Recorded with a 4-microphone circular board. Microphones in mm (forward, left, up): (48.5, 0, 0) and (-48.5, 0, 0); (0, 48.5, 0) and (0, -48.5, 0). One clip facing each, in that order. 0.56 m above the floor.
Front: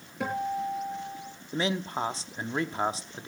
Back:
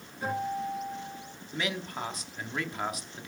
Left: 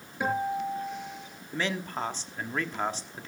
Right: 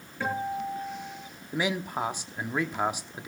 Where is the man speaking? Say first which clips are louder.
Front 5 dB, right 2 dB; 20° right, 1.1 m.